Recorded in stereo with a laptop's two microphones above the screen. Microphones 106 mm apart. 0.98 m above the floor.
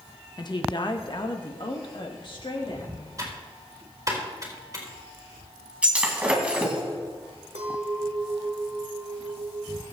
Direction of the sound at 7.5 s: 75° right (ahead or behind).